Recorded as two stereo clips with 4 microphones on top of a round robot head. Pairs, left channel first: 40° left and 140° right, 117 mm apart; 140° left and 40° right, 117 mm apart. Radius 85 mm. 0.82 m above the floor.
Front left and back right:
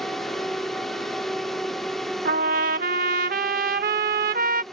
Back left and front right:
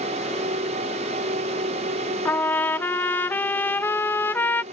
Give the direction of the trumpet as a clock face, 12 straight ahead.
5 o'clock.